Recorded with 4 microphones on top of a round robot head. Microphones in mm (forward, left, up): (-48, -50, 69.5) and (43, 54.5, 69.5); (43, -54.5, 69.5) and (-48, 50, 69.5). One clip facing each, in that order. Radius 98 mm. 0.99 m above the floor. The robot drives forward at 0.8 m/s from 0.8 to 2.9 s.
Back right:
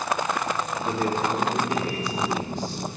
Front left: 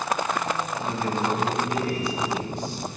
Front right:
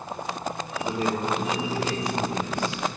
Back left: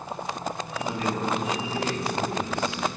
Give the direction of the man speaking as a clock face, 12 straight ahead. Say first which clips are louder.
Back right 1 dB, front right 2 dB; 4 o'clock.